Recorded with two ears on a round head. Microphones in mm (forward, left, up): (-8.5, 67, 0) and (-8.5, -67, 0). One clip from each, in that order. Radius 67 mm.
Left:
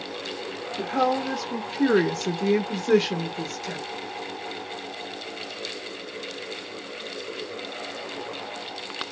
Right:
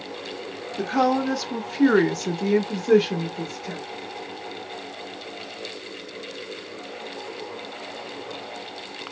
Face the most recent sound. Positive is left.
turn(degrees=35)  # may be behind; listen again after turning